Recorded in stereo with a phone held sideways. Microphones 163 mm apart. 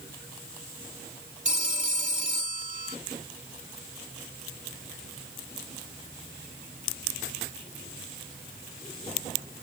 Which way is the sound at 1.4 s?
50° right (ahead or behind).